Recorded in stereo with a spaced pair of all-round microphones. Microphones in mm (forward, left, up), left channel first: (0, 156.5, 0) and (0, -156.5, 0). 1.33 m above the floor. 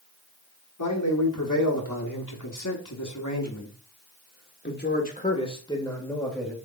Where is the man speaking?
90° left, 3.5 m; by 6.6 s centre (ahead or behind), 2 m.